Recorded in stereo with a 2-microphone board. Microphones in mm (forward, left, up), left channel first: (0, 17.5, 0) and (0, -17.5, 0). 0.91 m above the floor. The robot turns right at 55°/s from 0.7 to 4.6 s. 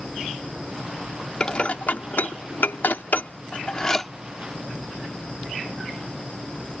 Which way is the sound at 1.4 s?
30° left (ahead or behind).